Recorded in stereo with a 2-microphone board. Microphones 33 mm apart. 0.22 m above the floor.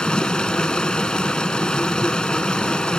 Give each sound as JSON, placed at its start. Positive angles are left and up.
{"t": 0.0, "sound": "running water", "side_deg": 30, "distance_m": 0.7}